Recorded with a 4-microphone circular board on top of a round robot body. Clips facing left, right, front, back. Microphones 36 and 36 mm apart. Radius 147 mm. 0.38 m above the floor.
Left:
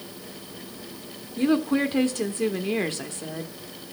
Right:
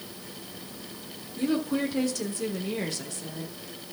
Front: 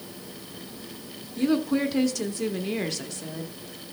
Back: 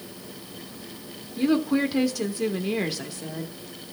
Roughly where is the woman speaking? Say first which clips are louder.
Left 5 dB, back 1 dB; left.